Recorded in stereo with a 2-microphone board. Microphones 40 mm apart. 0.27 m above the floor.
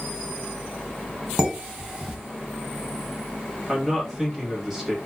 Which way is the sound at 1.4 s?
10° right (ahead or behind).